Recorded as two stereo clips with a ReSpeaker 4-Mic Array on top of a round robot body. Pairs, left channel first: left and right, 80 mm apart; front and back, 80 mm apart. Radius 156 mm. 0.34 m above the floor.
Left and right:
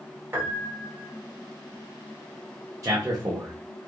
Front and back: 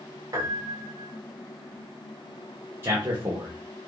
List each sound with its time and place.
0.3 s a piano: 150° right, 1.7 m
2.8 s a man speaking: 125° right, 1.3 m